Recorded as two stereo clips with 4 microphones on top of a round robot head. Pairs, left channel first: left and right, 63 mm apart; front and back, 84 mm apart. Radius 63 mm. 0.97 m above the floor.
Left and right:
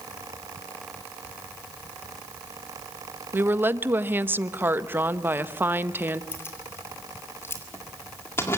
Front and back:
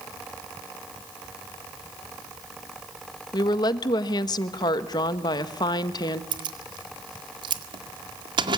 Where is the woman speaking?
35° right, 1.2 m.